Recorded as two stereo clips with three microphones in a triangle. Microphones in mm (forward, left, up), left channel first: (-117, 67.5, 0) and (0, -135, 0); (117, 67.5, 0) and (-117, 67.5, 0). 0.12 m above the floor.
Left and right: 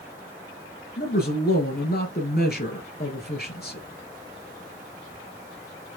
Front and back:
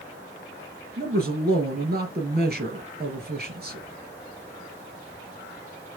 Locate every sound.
1.0 s a man speaking: 150° left, 2.5 m